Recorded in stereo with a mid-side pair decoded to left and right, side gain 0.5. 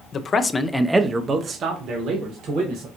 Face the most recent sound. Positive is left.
turn(degrees=-70)